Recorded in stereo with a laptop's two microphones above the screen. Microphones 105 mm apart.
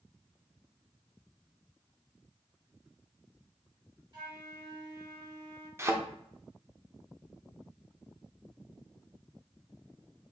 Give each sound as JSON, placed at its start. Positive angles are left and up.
{"t": 4.1, "sound": "a flute", "side_deg": -45, "distance_m": 1.3}
{"t": 5.8, "sound": "a thud", "side_deg": -25, "distance_m": 0.7}